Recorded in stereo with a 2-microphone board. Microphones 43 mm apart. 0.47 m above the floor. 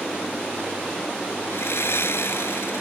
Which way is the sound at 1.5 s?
75° left (ahead or behind).